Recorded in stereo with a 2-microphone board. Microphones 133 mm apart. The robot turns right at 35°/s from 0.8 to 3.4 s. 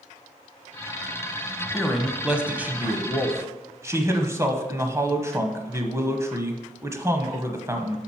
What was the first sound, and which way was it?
A man speaking, centre (ahead or behind).